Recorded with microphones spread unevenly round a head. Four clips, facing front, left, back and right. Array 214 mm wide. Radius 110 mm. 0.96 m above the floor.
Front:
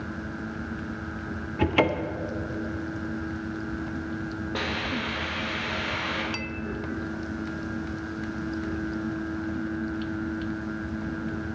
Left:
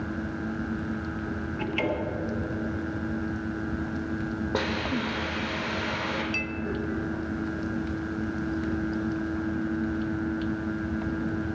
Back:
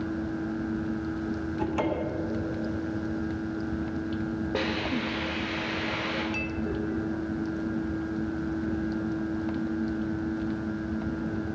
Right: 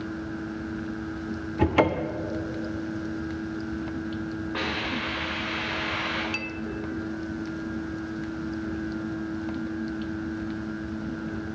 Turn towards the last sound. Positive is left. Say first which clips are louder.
# left 1 dB, back 2 dB
turn(degrees=-10)